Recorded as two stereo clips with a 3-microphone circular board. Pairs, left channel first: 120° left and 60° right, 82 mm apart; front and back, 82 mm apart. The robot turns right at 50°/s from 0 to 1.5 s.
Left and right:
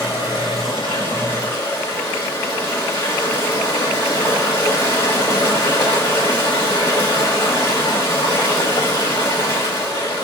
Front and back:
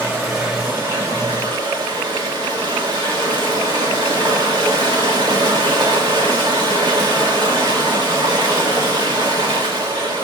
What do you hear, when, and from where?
0.0 s running water: 75° left, 1.8 m; by 10.2 s 150° left, 1.8 m